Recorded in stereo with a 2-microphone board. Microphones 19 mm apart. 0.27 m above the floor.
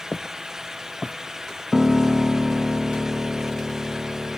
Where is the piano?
10° right (ahead or behind).